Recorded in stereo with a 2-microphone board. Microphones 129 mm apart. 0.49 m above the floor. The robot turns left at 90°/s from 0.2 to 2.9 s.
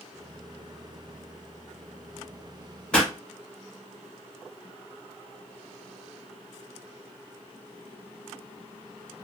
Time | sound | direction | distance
2.9 | a pop | 5° left (ahead or behind) | 1.3 m